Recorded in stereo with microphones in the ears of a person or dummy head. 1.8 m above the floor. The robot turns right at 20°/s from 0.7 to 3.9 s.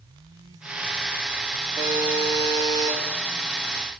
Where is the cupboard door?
No cupboard door in this recording.